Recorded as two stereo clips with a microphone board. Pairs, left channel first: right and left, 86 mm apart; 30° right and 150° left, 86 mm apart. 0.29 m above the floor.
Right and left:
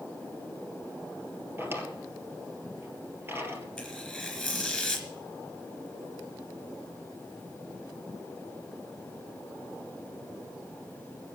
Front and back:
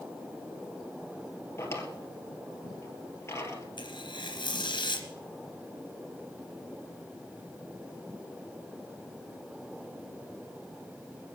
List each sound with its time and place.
1.6 s a drawer: 30° left, 2 m
3.8 s tearing paper: 5° right, 3 m